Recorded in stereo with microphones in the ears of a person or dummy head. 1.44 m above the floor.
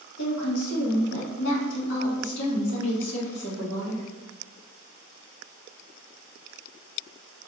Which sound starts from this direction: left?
A woman speaking, at 0.2 s.